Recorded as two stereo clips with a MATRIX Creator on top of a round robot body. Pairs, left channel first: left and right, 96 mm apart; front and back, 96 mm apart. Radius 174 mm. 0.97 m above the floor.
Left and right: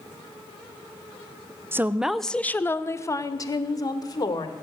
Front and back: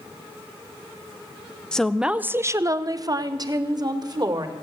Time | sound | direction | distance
1.7 | a woman speaking | 70° right | 0.8 m